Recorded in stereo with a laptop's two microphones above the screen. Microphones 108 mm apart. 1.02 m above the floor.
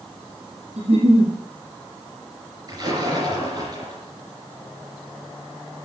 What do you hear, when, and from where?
0.8 s a giggle: 80° right, 7.5 m
2.7 s a splash: 35° right (ahead or behind), 4.5 m